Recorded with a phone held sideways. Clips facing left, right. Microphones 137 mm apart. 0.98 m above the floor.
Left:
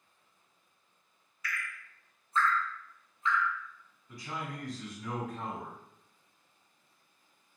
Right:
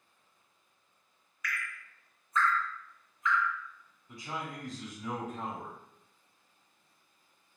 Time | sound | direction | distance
1.4 | dripping | 30° left (ahead or behind) | 0.6 m
4.1 | a man speaking | 25° right (ahead or behind) | 1.5 m